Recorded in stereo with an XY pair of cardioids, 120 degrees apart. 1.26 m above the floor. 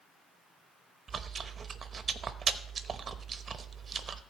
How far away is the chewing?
About 0.9 m.